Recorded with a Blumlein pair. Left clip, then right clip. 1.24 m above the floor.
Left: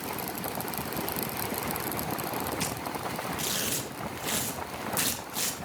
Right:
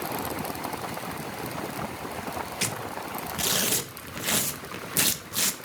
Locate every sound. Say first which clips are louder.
2.6 s tearing paper: right 1 dB; 20° right, 1.3 m